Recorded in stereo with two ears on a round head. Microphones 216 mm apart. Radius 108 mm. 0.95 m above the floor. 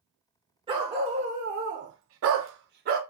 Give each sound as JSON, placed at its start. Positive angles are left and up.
{"t": 0.7, "sound": "a dog barking", "side_deg": -20, "distance_m": 1.4}